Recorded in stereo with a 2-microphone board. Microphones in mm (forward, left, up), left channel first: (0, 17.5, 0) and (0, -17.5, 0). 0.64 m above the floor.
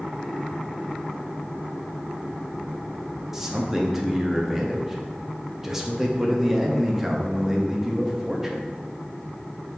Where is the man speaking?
15° right (ahead or behind), 0.5 m.